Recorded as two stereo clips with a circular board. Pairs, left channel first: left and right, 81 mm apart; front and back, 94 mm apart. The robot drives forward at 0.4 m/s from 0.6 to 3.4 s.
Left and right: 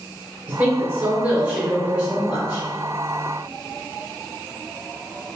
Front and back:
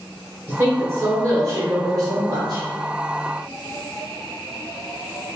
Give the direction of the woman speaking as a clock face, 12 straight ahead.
5 o'clock.